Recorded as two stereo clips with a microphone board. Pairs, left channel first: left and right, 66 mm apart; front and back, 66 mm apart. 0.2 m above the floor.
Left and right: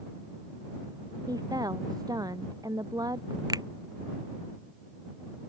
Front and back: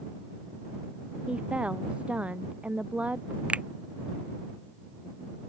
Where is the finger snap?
105° right.